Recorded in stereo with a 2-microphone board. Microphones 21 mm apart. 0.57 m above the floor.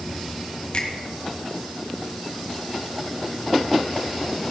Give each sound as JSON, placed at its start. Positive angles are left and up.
{"t": 0.7, "sound": "a finger snap", "side_deg": 55, "distance_m": 2.5}